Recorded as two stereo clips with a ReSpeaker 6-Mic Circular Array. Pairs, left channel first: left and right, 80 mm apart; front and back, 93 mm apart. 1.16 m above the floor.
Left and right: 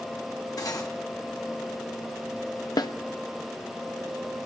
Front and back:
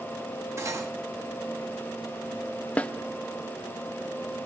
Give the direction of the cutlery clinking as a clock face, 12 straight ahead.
8 o'clock.